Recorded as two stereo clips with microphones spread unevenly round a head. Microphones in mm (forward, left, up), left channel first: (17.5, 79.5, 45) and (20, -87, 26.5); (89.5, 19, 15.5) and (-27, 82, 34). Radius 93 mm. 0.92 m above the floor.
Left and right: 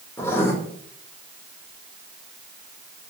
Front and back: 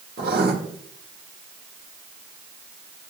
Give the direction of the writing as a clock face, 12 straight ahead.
6 o'clock.